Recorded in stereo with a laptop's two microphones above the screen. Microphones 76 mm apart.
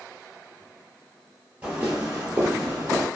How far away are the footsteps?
About 1.4 m.